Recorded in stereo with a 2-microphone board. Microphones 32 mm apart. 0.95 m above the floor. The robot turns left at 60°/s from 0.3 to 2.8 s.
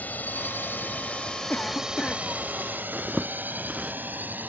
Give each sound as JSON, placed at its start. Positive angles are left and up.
{"t": 0.0, "sound": "a drone", "side_deg": 60}
{"t": 1.5, "sound": "a cough", "azimuth_deg": 75}
{"t": 2.9, "sound": "a zipper", "side_deg": -30}